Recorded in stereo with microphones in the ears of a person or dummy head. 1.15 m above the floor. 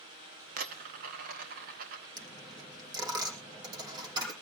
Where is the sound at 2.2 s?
25° right (ahead or behind), 4.5 m.